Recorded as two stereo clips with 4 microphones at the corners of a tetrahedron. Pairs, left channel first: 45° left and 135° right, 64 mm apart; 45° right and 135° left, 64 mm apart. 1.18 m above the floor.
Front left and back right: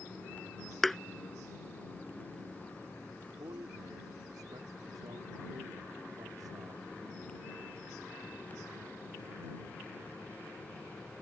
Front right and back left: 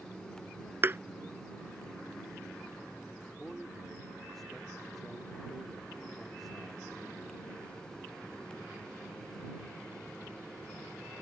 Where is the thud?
130° left.